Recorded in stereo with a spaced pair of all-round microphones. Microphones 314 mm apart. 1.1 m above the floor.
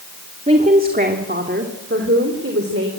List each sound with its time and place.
0.5 s a woman speaking: 20° right (ahead or behind), 2 m; by 2.9 s 45° right (ahead or behind), 3.5 m